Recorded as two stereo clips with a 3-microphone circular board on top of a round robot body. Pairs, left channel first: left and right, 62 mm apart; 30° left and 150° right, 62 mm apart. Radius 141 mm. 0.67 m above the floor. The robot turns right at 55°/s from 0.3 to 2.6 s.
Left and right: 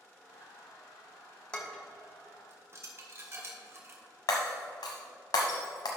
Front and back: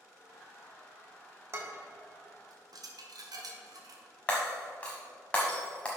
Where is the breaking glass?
105° left, 0.8 m.